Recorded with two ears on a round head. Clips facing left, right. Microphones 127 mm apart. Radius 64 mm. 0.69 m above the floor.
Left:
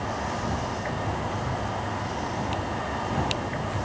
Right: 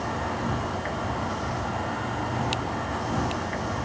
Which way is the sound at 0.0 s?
55° right (ahead or behind).